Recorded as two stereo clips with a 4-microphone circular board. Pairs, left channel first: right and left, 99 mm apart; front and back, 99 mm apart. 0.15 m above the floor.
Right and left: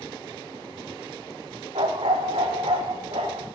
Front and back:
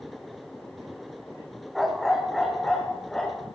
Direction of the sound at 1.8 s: 90° left.